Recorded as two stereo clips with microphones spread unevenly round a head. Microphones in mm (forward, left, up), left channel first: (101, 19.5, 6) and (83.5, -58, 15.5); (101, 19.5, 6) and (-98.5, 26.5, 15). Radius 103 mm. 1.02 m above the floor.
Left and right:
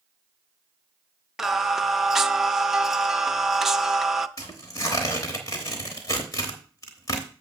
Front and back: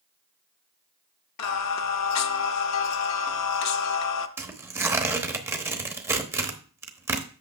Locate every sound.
1.4 s singing: 20° right, 0.6 m
4.4 s tearing paper: 110° left, 0.9 m